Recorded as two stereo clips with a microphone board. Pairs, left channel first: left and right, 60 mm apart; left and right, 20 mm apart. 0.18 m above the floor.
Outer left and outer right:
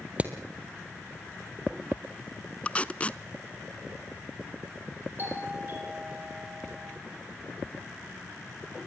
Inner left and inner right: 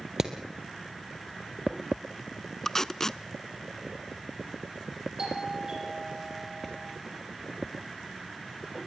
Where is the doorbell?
35° right (ahead or behind), 8.5 m.